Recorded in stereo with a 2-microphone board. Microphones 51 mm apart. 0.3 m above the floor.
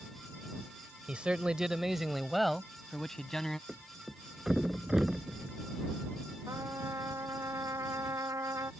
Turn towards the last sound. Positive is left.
turn(degrees=-85)